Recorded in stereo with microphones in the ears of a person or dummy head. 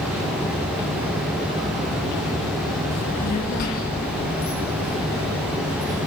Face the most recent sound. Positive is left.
turn(degrees=65)  # may be behind; listen again after turning